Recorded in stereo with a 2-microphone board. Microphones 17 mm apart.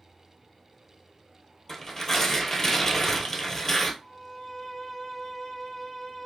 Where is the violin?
35° left (ahead or behind), 1.1 m.